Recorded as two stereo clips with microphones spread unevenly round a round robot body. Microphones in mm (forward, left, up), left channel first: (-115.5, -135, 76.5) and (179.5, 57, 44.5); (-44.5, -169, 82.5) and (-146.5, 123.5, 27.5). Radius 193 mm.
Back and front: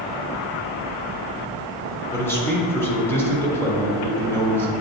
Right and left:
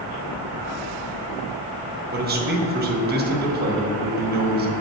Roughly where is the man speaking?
Behind left.